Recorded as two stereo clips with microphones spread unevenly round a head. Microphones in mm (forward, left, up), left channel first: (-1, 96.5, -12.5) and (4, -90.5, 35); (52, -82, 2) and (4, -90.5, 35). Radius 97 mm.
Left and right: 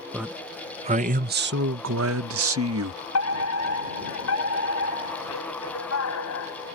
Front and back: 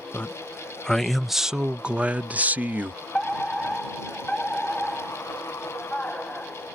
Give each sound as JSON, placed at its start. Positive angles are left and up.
{"t": 0.1, "sound": "a man speaking", "azimuth_deg": 5}
{"t": 3.1, "sound": "a fire alarm", "azimuth_deg": 100}